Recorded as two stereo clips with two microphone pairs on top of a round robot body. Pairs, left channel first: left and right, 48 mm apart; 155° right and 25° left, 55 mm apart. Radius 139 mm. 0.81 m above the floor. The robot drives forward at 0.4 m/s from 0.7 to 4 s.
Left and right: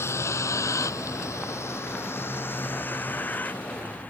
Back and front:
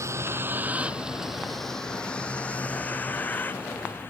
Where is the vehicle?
65° left; by 4.1 s 150° left.